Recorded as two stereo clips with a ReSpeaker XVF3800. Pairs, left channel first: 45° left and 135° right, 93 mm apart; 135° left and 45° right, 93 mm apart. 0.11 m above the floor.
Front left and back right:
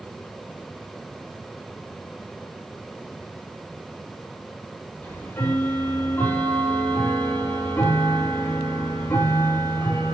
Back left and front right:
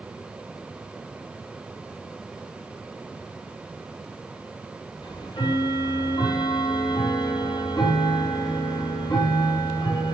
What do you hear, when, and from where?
5.0 s ticking: 110° left, 4.5 m